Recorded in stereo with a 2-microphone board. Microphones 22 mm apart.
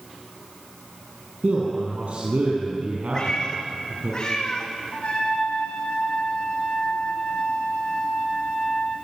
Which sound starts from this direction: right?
A man speaking, at 1.4 s.